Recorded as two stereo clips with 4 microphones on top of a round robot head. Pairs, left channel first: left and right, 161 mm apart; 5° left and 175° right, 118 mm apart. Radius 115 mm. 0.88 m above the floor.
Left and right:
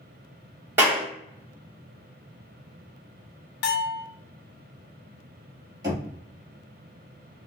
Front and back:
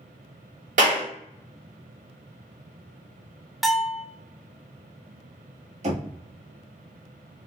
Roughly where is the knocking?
Behind.